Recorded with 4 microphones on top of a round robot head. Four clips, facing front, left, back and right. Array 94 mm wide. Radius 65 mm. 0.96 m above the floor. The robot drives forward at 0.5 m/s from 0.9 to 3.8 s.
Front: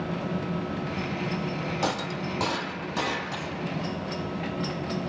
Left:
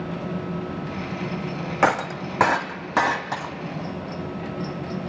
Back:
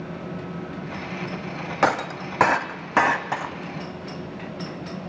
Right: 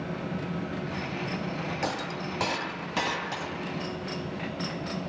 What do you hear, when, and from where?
1.8 s breaking glass: 130° left, 1.3 m; by 3.5 s 150° left, 1.9 m